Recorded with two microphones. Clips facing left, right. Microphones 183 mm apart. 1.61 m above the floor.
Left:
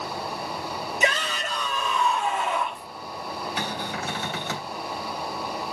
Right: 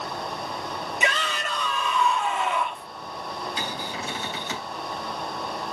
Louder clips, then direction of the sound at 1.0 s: Left 2 dB; 40° left (ahead or behind).